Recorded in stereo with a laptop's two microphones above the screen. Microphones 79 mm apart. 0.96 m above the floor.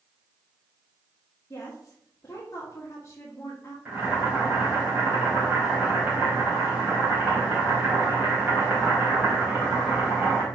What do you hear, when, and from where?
1.5 s a woman speaking: 35° left (ahead or behind), 1.6 m
3.9 s boiling: 20° right (ahead or behind), 3 m